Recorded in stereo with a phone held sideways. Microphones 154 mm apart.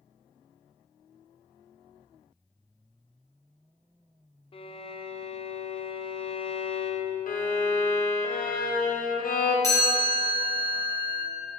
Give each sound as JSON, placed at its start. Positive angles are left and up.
{"t": 4.5, "sound": "a violin", "side_deg": 35, "distance_m": 0.6}
{"t": 7.3, "sound": "a violin", "side_deg": 60, "distance_m": 0.8}
{"t": 9.6, "sound": "a chime", "side_deg": 20, "distance_m": 2.5}